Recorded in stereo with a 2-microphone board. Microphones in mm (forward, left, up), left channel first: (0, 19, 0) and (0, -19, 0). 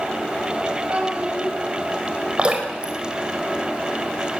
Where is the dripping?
30° right (ahead or behind), 4 m.